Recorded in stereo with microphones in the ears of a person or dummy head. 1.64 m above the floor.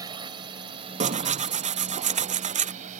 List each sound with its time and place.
0.0 s a drone: 25° right (ahead or behind); by 3.0 s 45° right (ahead or behind)
1.0 s tearing paper: 35° right (ahead or behind)